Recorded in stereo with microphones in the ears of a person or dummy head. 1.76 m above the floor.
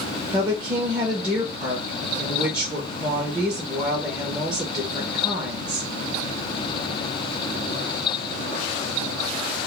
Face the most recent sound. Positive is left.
turn(degrees=-20)  # may be behind; listen again after turning